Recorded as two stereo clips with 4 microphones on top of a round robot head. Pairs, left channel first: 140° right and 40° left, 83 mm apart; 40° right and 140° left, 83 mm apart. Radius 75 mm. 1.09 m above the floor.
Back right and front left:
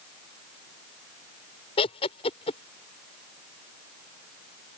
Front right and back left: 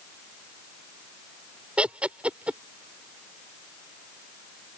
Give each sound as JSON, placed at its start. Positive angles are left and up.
{"t": 1.8, "sound": "laughter", "azimuth_deg": -140}